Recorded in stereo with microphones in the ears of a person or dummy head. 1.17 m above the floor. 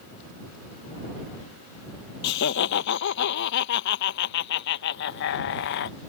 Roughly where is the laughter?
Left.